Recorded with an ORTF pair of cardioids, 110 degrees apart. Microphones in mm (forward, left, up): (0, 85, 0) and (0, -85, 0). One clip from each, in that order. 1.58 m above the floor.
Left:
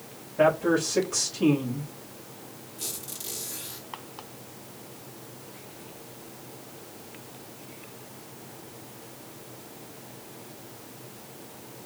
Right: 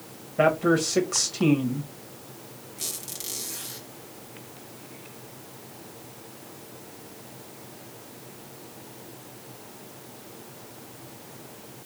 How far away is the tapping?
I don't hear tapping.